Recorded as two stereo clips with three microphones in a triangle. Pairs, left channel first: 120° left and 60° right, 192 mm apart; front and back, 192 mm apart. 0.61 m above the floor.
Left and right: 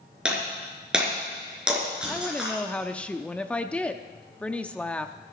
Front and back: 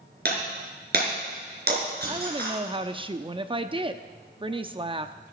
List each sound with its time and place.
0.2 s breaking glass: 145° right, 4.5 m
2.1 s a woman speaking: 165° right, 0.7 m